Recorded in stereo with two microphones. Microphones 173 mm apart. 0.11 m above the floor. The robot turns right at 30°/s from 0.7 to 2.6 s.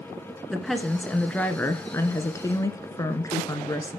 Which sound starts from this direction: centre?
A woman speaking, at 0.5 s.